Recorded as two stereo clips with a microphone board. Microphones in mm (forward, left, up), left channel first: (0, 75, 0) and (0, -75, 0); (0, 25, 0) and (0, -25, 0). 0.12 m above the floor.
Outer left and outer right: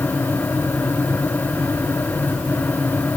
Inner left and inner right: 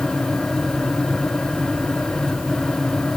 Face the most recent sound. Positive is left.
No sound to turn to.